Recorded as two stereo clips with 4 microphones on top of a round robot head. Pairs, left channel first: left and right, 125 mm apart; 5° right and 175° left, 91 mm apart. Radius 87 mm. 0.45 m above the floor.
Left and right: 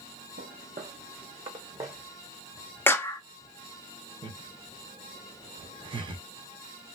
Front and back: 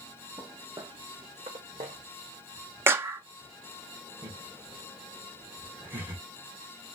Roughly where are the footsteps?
Right.